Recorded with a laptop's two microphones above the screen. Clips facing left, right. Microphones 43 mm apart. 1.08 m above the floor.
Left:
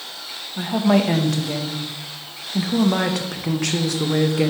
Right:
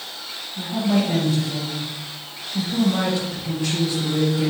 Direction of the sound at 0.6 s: 70° left (ahead or behind).